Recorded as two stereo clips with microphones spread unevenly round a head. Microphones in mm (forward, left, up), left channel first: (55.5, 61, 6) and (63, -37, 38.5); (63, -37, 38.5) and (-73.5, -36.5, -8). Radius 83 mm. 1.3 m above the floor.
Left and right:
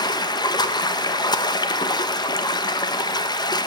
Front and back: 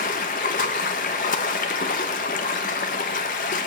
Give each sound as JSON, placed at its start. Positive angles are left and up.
{"t": 0.0, "sound": "running water", "azimuth_deg": 45, "distance_m": 1.1}